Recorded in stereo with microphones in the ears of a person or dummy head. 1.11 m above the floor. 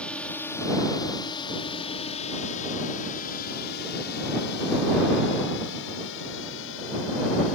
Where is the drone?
5° left (ahead or behind); by 7.5 s 70° left (ahead or behind).